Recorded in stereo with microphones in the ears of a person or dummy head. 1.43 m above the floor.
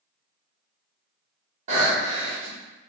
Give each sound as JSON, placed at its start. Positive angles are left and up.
{"t": 1.7, "sound": "breathing", "side_deg": -45, "distance_m": 1.3}